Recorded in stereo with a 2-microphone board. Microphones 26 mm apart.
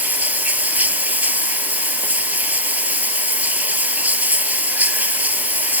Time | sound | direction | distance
0.0 | running water | 80° right | ?